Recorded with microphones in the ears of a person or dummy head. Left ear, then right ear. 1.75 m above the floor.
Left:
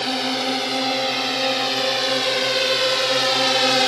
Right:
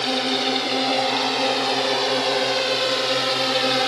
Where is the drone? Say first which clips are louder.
Right 1 dB; centre (ahead or behind); by 3.9 s 20° left (ahead or behind).